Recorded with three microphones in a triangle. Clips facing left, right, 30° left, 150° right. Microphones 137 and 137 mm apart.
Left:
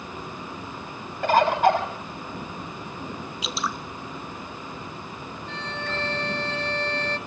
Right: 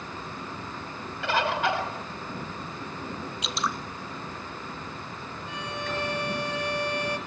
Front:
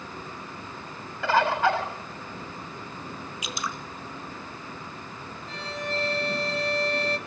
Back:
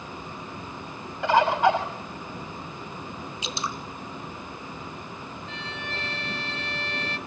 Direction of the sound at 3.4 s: Straight behind.